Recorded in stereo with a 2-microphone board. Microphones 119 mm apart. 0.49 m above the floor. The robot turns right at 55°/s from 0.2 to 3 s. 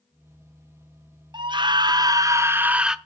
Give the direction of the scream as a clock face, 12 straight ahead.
3 o'clock.